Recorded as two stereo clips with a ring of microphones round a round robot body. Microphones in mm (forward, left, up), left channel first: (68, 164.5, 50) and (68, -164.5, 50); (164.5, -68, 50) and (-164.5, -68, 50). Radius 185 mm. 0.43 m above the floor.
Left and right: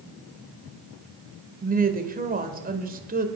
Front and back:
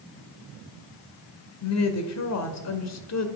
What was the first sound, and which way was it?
A woman speaking, 30° right.